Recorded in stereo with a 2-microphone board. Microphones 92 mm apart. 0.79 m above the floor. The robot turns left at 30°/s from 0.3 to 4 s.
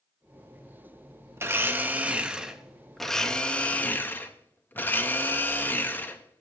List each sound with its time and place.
1.4 s a blender: 135° right, 0.8 m; by 6.4 s 145° left, 0.8 m